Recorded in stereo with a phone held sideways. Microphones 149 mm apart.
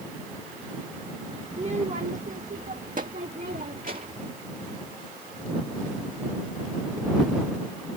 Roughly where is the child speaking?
Right.